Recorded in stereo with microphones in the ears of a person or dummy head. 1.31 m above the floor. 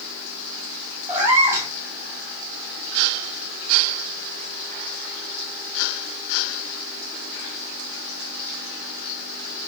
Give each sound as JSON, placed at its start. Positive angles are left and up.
{"t": 1.1, "sound": "a cat meowing", "side_deg": -10, "distance_m": 1.6}